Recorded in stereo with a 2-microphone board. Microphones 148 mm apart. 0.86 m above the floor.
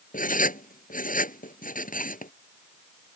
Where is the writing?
70° left (ahead or behind).